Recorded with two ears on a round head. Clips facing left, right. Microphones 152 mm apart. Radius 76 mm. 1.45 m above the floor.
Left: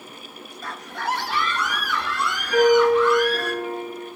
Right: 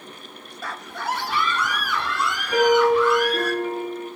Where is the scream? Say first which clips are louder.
Even; 55° right (ahead or behind), 0.6 m; by 3.5 s 60° right (ahead or behind), 3.5 m.